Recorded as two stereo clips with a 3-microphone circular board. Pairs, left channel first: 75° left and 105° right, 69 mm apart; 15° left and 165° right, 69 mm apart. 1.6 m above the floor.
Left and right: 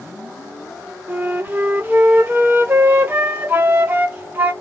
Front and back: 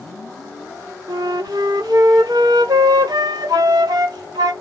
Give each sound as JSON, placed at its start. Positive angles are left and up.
{"t": 1.1, "sound": "a flute", "azimuth_deg": -165, "distance_m": 0.7}